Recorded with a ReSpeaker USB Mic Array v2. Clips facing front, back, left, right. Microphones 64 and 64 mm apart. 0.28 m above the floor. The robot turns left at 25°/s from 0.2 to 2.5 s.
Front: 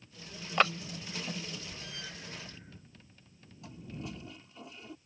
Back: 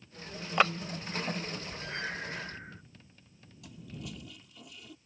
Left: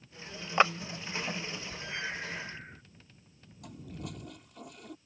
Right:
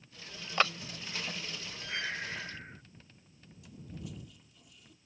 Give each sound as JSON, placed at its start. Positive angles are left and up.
{"t": 0.6, "sound": "a clap", "azimuth_deg": 105}
{"t": 1.9, "sound": "breathing", "azimuth_deg": -165}
{"t": 3.6, "sound": "a toilet flushing", "azimuth_deg": 60}